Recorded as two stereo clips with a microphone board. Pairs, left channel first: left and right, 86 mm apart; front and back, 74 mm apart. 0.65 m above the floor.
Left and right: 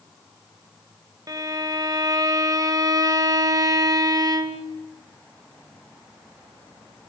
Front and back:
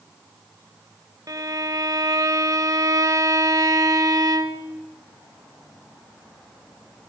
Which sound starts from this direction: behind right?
A violin, at 1.3 s.